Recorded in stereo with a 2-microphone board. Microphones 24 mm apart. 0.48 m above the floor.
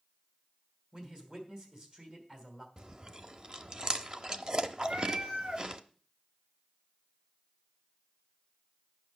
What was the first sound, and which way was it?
A man speaking, 35° right (ahead or behind).